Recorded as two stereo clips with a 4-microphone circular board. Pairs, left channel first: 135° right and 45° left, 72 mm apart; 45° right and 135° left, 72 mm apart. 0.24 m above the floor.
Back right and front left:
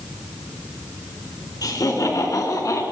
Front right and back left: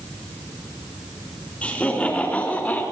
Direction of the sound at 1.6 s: 115° right.